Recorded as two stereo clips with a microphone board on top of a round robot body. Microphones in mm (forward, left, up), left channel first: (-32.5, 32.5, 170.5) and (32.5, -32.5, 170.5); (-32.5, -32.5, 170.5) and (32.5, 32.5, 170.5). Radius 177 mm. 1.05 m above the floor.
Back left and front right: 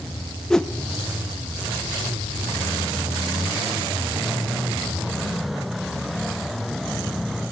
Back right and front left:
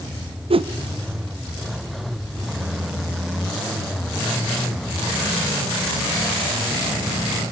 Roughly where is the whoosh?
Ahead left.